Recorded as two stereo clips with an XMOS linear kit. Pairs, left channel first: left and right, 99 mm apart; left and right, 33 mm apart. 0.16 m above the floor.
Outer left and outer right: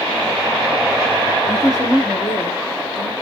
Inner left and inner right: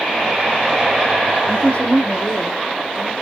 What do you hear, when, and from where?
1.5 s a woman speaking: 40° left (ahead or behind), 1.5 m; by 3.1 s 5° left (ahead or behind), 1.5 m